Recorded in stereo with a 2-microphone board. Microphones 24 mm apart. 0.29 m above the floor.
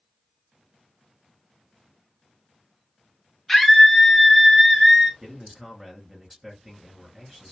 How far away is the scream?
About 0.9 m.